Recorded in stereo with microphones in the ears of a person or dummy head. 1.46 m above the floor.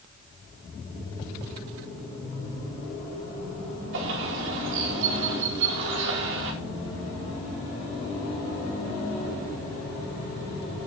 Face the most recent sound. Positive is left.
turn(degrees=-80)